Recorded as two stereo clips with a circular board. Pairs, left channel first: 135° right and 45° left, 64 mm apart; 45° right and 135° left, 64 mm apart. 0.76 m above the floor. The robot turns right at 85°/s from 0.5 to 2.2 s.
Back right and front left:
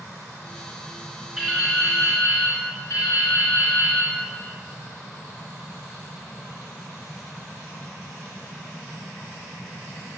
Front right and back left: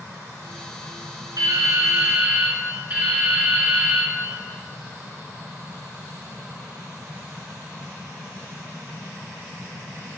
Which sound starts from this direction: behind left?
Dripping, at 1.4 s.